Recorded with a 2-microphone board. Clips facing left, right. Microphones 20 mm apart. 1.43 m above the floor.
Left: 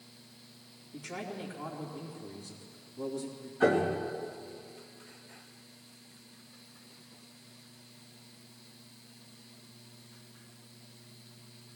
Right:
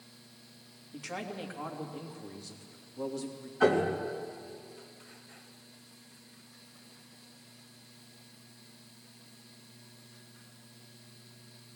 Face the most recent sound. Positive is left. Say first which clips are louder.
# even
turn(degrees=-50)  # may be behind; listen again after turning